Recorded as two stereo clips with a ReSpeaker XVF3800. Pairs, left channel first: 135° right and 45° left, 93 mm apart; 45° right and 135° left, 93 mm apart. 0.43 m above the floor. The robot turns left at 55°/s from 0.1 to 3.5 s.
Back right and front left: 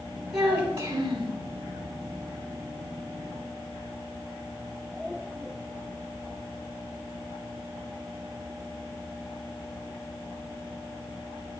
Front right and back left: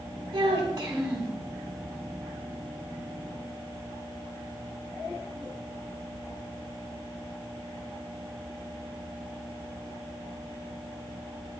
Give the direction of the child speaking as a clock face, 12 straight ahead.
9 o'clock.